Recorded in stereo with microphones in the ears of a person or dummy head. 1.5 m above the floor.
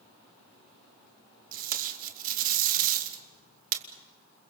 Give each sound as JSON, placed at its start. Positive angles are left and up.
{"t": 1.5, "sound": "tape being pulled", "side_deg": -45, "distance_m": 2.5}